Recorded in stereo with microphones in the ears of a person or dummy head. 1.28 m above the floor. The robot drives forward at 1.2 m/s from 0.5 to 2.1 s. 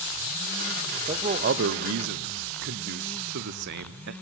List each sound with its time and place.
1.1 s a man speaking: 30° right (ahead or behind), 1.0 m; by 4.1 s 55° right (ahead or behind), 0.7 m